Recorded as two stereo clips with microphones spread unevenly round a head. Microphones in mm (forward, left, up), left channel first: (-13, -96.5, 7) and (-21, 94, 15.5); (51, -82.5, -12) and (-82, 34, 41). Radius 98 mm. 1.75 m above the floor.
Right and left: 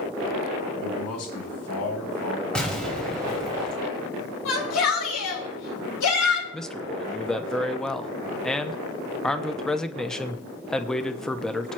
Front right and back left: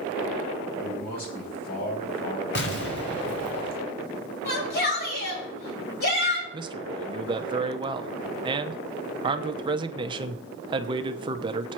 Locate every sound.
0.8 s a man speaking: 80° right, 9 m; by 2.5 s 85° right, 9 m
2.5 s an explosion: straight ahead, 2.5 m
4.5 s a shout: 75° right, 7 m
6.5 s a man speaking: 175° right, 1.0 m